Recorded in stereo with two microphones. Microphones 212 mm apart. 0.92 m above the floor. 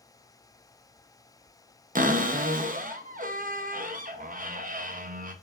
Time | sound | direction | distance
1.9 | a cupboard door | 40° right (ahead or behind) | 0.5 m